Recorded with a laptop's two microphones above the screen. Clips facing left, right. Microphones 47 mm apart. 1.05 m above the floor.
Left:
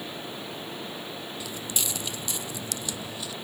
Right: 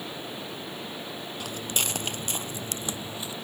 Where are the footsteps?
50° right (ahead or behind); by 3.3 s 25° right (ahead or behind).